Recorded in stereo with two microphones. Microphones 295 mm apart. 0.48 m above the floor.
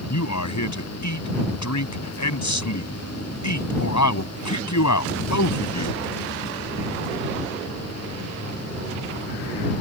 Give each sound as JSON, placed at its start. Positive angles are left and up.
{"t": 0.1, "sound": "a man speaking", "side_deg": 75}